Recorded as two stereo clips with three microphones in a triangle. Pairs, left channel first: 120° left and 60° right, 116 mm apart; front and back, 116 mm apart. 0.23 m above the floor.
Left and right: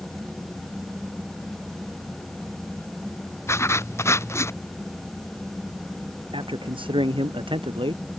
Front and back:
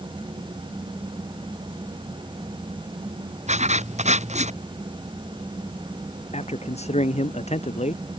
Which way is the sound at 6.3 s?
20° right.